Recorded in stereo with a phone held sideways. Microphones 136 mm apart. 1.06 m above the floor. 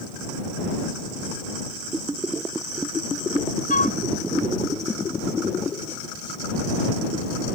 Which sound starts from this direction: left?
A flute, at 3.7 s.